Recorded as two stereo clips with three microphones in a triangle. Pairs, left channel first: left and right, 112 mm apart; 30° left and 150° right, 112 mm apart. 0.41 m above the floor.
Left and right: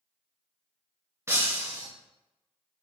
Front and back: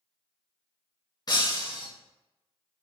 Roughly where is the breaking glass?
Ahead right.